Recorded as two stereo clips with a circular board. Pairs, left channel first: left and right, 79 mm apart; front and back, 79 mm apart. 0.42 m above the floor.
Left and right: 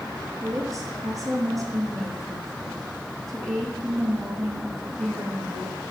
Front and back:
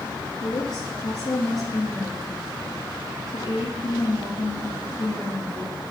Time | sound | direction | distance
0.4 | a woman speaking | 45° right | 5.5 m